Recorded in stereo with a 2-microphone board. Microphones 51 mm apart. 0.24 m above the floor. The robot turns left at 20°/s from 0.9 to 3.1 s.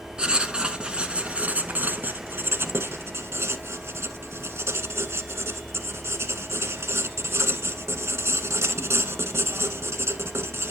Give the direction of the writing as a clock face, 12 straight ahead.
1 o'clock.